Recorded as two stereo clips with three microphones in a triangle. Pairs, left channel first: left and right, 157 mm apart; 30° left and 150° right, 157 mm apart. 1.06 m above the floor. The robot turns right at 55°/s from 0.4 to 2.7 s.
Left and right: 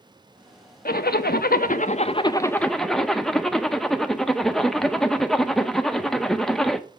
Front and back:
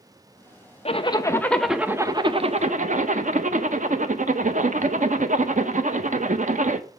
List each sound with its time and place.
0.8 s a zipper: 75° left, 0.6 m; by 6.9 s 175° left, 0.6 m